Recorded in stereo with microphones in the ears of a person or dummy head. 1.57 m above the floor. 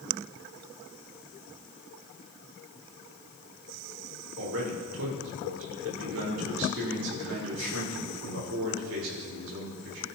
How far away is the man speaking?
About 4 m.